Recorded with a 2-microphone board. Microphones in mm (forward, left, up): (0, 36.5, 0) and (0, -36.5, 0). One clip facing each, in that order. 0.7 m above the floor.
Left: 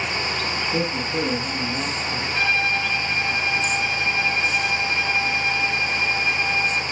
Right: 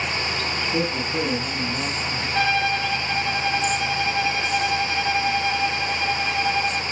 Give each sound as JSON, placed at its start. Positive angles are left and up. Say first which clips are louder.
{"t": 0.7, "sound": "a man speaking", "louder": "right 1 dB", "side_deg": 5, "distance_m": 7.0}
{"t": 2.4, "sound": "a violin", "louder": "right 2 dB", "side_deg": -50, "distance_m": 2.5}